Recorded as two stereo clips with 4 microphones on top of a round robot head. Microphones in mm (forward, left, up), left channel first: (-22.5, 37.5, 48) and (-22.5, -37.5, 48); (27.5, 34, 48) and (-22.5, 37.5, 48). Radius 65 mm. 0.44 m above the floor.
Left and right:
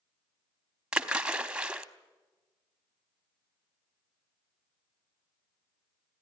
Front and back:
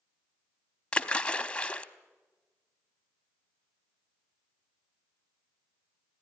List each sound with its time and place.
0.9 s a splash: 30° right, 1.1 m